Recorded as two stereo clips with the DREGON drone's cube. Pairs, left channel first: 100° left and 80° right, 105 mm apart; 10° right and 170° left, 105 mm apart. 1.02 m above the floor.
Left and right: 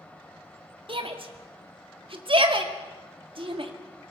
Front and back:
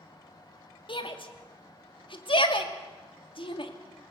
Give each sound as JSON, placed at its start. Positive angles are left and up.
{"t": 0.9, "sound": "a shout", "azimuth_deg": -45, "distance_m": 2.0}